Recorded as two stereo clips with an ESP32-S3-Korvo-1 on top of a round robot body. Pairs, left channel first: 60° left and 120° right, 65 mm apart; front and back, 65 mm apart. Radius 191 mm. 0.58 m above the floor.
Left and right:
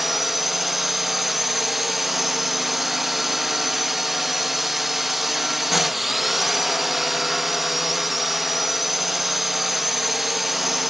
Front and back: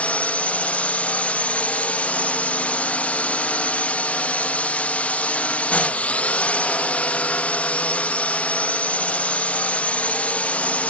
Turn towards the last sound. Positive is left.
turn(degrees=-35)